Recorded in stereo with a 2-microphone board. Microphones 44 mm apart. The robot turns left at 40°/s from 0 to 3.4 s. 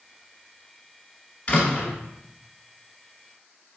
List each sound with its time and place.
1.5 s a door slam: 30° left (ahead or behind), 1.1 m; by 1.9 s 25° left (ahead or behind), 1.1 m